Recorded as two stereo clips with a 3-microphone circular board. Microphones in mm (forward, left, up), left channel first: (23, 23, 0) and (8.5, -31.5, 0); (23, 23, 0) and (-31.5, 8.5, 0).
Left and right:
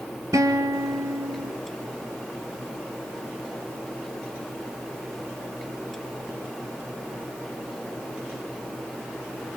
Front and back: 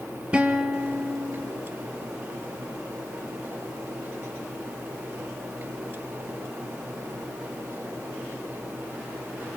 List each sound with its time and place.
0.3 s a guitar: 95° right, 2 m